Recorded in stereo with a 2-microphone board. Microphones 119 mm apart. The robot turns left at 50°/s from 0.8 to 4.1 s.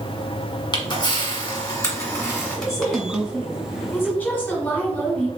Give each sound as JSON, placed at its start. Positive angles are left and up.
{"t": 0.7, "sound": "a camera shutter", "side_deg": 35, "distance_m": 1.8}
{"t": 2.5, "sound": "a woman speaking", "side_deg": 25, "distance_m": 1.6}